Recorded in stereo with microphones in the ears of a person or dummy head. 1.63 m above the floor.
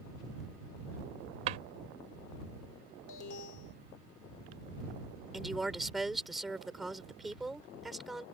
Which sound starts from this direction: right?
A drawer, at 1.5 s.